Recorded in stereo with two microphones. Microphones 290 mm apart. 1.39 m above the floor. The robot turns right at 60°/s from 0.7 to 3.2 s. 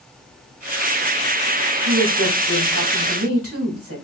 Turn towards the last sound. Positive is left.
turn(degrees=-50)